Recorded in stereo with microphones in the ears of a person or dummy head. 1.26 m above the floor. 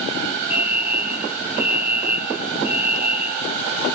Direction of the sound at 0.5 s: 50° right (ahead or behind).